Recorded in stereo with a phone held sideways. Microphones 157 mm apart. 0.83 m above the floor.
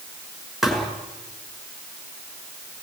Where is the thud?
Centre (ahead or behind), 5.5 m.